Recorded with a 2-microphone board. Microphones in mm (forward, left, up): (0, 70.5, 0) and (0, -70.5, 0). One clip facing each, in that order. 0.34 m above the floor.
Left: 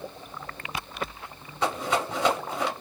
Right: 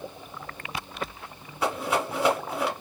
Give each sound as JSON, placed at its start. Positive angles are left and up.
{"t": 1.6, "sound": "a rattle", "side_deg": -5, "distance_m": 1.6}